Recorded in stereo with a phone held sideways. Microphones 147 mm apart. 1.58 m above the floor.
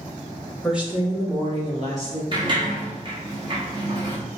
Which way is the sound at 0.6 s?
Centre (ahead or behind).